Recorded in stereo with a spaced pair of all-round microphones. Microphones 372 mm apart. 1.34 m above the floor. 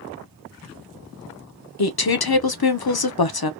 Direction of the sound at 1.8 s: 75° left (ahead or behind).